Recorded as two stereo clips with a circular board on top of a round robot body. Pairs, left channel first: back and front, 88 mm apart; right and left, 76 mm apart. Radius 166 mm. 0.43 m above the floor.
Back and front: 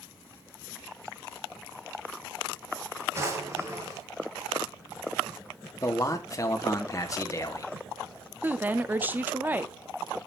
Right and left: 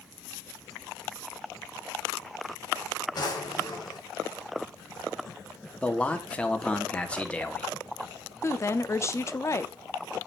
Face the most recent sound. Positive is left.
turn(degrees=-60)